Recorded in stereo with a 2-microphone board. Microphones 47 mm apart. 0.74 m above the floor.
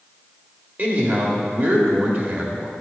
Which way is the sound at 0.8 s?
45° right (ahead or behind).